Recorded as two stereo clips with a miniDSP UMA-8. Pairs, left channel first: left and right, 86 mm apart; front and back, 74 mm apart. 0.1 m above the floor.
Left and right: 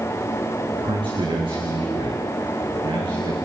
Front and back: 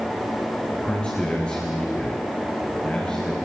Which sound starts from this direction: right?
A man speaking, at 0.7 s.